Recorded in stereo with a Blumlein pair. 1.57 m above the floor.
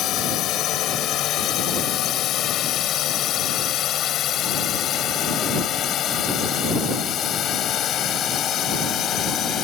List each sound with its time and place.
0.0 s a drone: 35° left; by 9.6 s 30° left